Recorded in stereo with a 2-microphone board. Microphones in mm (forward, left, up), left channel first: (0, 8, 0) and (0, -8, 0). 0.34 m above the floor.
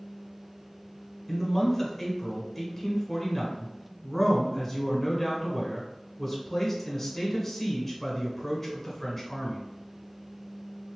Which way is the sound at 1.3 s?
15° left (ahead or behind).